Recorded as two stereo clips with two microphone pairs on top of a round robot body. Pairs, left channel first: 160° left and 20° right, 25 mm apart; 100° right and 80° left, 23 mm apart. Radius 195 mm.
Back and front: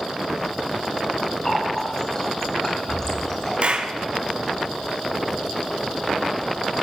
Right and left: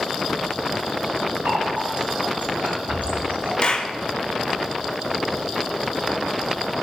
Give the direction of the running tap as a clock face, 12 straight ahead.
9 o'clock.